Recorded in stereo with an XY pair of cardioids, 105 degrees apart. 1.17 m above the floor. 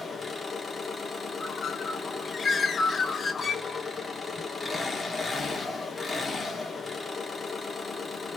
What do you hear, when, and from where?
0.0 s an engine running: 20° left, 1.6 m
1.4 s a bird: 30° left, 0.9 m